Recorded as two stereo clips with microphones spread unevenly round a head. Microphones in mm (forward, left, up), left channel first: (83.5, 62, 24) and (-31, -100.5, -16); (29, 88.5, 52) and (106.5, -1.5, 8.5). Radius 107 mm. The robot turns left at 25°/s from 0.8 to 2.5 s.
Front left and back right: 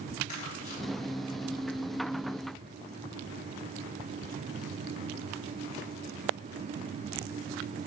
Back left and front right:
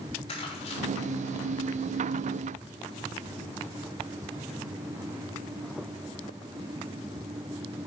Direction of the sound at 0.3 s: 105° left.